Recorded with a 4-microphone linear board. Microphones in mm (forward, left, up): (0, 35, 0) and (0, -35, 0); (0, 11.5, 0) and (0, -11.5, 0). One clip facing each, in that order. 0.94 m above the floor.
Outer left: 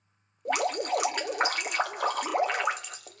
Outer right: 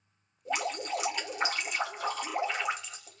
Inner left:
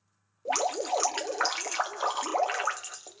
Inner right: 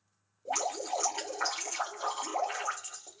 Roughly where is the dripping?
Left.